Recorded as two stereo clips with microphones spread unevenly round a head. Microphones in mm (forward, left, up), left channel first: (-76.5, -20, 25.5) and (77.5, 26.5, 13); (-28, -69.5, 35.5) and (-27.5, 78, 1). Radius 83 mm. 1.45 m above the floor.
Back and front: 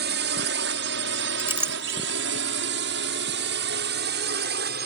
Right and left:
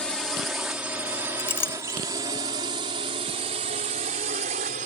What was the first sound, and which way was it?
A drone, 5° right.